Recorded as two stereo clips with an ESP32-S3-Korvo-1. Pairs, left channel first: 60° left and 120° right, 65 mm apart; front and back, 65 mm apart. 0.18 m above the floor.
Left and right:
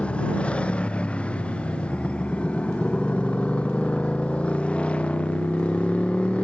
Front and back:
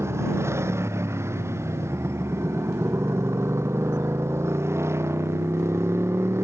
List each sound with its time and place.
0.0 s a motorcycle: 135° left